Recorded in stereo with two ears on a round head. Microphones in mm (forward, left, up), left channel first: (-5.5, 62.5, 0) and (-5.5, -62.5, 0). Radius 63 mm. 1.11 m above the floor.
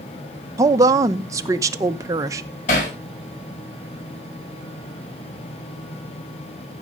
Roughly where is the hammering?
Left.